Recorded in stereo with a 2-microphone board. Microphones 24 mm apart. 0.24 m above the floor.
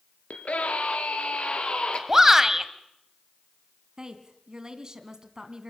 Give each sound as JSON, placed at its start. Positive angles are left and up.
{"t": 0.3, "sound": "a scream", "side_deg": 70, "distance_m": 4.0}
{"t": 2.1, "sound": "a shout", "side_deg": -15, "distance_m": 1.5}
{"t": 4.0, "sound": "a woman speaking", "side_deg": -25, "distance_m": 1.8}